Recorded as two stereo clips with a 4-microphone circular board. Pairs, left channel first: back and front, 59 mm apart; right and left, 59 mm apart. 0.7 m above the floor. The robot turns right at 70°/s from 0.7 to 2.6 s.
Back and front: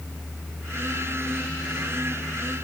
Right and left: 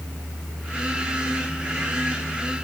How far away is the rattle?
I don't hear a rattle.